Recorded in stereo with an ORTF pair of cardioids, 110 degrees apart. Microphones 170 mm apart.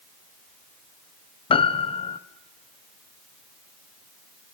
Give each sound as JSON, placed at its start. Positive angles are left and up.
{"t": 1.5, "sound": "a piano", "azimuth_deg": 30, "distance_m": 1.4}